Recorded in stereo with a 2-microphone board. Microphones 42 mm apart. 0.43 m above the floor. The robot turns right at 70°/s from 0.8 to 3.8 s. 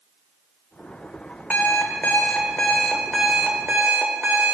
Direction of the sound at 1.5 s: 65° left.